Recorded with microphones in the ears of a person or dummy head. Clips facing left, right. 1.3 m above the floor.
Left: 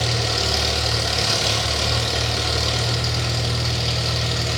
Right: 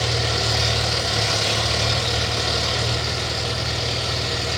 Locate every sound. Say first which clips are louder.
0.0 s an engine running: even; 50° left (ahead or behind), 1.0 m